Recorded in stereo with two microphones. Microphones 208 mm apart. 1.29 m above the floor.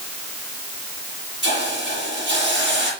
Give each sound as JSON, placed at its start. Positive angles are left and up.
{"t": 1.4, "sound": "a hiss", "side_deg": -65, "distance_m": 6.5}